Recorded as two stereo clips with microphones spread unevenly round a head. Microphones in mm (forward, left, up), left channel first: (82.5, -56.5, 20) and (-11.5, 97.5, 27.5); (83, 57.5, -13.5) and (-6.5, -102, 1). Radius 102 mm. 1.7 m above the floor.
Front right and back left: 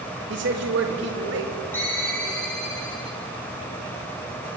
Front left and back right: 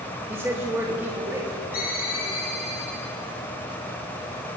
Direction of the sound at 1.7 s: 20° left.